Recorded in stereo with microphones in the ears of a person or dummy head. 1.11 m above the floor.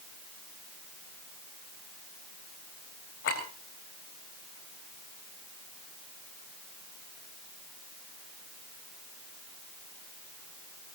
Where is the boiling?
No boiling in this recording.